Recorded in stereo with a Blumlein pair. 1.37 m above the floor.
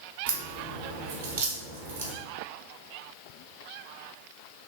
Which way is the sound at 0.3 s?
65° right.